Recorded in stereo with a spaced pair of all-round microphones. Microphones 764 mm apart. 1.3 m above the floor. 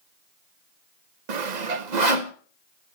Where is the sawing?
70° right (ahead or behind), 1.1 m.